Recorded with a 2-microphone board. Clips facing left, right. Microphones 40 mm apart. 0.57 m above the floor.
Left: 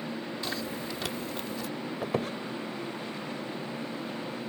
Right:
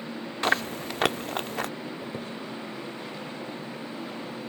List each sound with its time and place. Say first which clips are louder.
0.4 s chewing: right 12 dB; 60° right (ahead or behind)
2.0 s a squeak: left 5 dB; 75° left (ahead or behind)